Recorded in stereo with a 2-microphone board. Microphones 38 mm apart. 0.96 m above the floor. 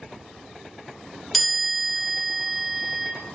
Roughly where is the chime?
Centre.